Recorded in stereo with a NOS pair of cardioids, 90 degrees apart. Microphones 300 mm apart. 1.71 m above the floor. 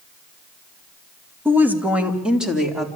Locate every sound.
1.4 s a woman speaking: 5° right, 2 m; by 2.9 s straight ahead, 4 m